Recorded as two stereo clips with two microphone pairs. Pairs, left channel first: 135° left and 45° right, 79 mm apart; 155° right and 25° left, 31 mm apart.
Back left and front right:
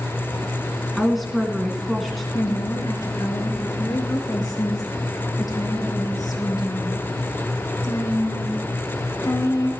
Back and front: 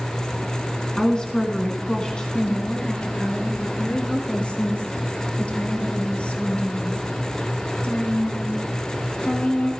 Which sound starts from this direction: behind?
A woman speaking, at 2.3 s.